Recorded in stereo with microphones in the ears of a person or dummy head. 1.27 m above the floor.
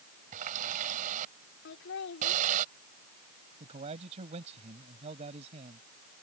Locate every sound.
0.3 s a running tap: 40° right (ahead or behind)
1.6 s laughter: 65° left (ahead or behind)
3.6 s a man speaking: 30° right (ahead or behind)